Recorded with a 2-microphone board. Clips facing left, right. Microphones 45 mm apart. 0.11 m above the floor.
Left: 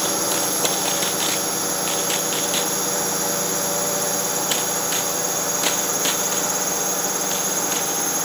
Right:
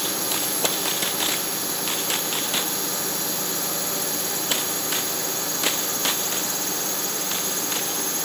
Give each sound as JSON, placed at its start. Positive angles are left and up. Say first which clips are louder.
{"t": 0.0, "sound": "a drone", "louder": "left 5 dB", "side_deg": 55}